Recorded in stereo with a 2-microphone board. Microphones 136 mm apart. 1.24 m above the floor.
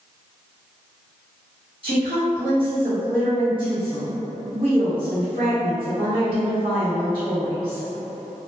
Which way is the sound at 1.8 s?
40° right (ahead or behind).